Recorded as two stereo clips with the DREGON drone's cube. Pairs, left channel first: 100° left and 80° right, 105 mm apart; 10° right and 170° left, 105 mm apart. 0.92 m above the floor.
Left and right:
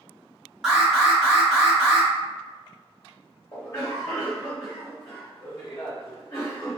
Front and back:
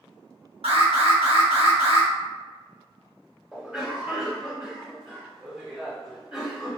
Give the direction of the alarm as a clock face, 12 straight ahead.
5 o'clock.